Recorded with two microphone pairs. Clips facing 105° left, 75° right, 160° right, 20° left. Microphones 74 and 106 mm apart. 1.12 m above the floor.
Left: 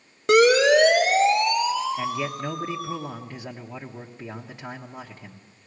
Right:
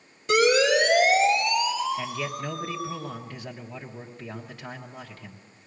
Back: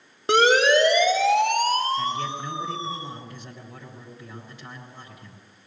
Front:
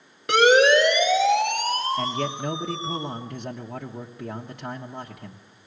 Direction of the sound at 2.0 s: 35° left.